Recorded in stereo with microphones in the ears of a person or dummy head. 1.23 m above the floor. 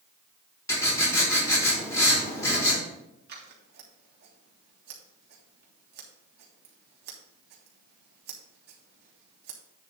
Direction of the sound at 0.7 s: 20° left (ahead or behind).